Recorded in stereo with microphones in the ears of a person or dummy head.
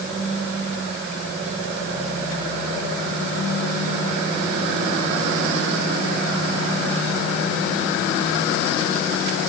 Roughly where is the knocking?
I don't hear knocking.